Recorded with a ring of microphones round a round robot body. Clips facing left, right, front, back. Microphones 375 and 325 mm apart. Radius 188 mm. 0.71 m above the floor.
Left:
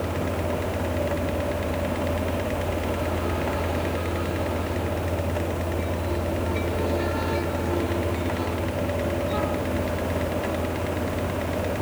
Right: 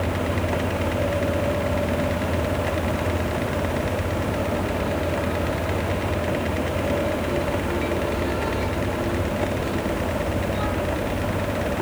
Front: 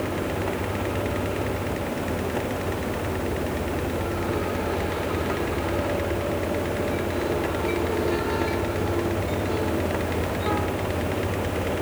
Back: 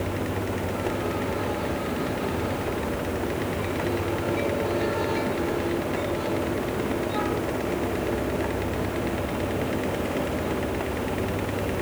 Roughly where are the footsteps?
I don't hear footsteps.